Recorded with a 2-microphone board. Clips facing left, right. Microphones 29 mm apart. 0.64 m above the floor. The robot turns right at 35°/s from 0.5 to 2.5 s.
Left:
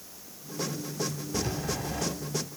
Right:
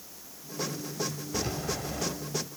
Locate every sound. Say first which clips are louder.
1.3 s a rattle: left 1 dB; 25° right (ahead or behind), 3.5 m; by 2.0 s centre (ahead or behind), 3.5 m